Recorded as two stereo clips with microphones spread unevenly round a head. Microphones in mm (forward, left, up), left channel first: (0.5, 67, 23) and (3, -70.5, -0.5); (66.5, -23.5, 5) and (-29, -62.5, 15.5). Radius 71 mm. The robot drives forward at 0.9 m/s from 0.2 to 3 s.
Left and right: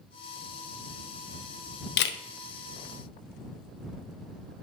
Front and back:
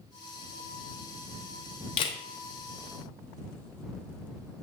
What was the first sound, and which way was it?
A camera shutter, 75° left.